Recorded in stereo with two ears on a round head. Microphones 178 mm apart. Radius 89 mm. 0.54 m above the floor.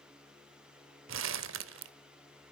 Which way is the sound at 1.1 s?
70° right (ahead or behind).